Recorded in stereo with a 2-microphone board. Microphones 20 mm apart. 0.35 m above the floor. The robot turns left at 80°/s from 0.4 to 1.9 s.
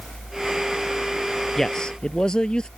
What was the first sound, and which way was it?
A man speaking, 20° left (ahead or behind).